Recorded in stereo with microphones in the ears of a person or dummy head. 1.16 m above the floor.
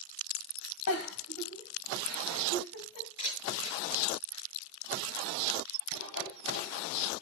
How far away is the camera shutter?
About 6.5 m.